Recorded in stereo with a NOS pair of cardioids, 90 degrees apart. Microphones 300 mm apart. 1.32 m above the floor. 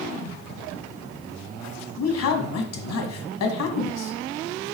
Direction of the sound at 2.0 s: 60° left.